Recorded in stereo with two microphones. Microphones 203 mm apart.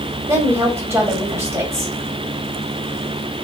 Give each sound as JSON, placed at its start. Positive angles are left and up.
{"t": 0.3, "sound": "a woman speaking", "side_deg": -15, "distance_m": 1.7}